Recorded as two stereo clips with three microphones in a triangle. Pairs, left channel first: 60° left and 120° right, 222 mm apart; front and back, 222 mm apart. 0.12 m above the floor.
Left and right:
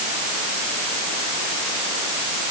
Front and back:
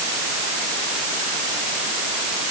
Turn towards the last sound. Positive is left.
No sound to turn to.